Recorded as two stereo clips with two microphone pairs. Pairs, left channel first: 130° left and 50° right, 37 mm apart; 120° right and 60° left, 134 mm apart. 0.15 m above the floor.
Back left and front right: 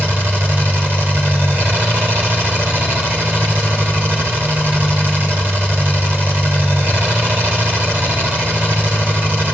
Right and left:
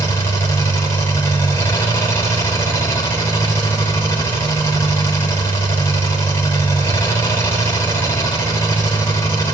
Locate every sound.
0.0 s an engine running: 50° right, 9 m